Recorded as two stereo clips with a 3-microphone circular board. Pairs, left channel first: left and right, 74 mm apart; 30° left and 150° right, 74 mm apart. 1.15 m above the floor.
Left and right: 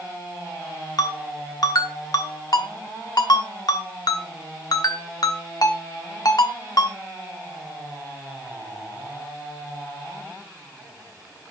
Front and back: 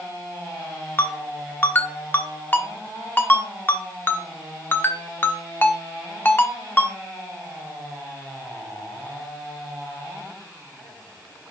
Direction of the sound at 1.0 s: 85° left.